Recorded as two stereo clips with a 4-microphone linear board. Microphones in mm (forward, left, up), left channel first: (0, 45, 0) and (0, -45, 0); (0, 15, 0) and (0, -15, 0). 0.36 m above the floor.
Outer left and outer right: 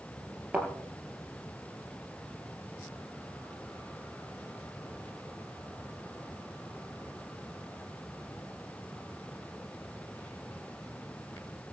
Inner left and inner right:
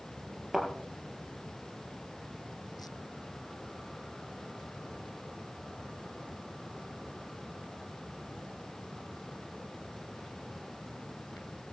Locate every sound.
0.5 s a thud: 15° right (ahead or behind), 4 m